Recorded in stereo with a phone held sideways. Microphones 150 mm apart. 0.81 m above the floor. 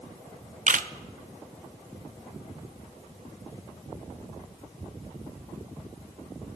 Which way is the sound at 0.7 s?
60° right (ahead or behind).